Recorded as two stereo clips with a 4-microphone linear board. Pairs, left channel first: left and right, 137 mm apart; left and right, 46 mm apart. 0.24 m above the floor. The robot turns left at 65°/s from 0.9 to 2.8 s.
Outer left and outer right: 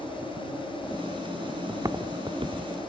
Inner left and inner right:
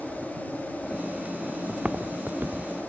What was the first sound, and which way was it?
Footsteps, 25° right (ahead or behind).